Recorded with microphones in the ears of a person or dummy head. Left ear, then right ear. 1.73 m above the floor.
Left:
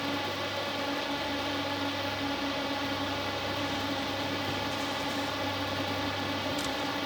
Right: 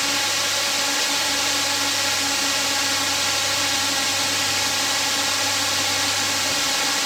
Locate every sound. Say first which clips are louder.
0.0 s a drone: right 11 dB; 70° right (ahead or behind)